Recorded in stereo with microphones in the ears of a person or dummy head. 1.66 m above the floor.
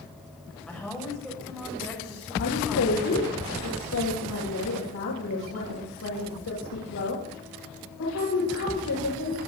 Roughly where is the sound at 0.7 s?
Centre.